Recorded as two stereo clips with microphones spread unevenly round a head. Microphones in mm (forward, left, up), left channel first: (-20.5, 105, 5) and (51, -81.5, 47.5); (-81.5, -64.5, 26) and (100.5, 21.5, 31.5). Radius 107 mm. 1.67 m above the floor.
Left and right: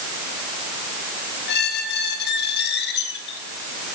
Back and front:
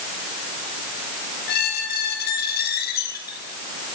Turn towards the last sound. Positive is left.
turn(degrees=155)